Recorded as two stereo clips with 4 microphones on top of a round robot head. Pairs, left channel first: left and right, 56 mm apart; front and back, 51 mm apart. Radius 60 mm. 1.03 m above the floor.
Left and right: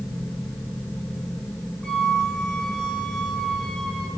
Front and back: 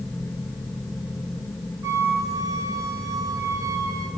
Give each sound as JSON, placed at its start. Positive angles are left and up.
{"t": 1.8, "sound": "a flute", "azimuth_deg": 175, "distance_m": 3.0}